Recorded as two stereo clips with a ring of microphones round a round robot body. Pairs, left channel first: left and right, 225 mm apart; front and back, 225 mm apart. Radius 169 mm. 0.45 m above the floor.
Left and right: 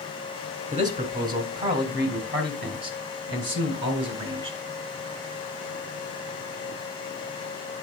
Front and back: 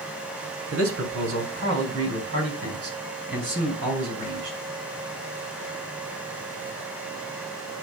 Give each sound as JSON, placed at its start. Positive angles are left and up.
{"t": 0.7, "sound": "a man speaking", "azimuth_deg": -150, "distance_m": 2.0}